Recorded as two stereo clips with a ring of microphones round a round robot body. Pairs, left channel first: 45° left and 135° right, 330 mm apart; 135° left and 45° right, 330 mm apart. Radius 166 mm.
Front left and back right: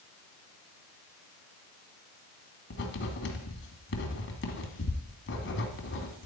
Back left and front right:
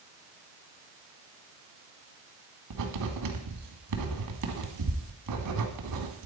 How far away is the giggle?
No giggle in this recording.